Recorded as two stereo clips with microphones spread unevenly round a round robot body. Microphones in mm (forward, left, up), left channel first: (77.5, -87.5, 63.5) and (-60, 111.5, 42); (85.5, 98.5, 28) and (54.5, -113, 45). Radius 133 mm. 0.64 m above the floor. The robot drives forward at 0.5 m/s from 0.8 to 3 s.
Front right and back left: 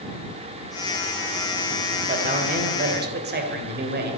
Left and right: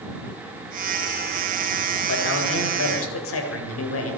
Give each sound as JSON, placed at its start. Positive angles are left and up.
{"t": 2.1, "sound": "a man speaking", "azimuth_deg": 65, "distance_m": 2.5}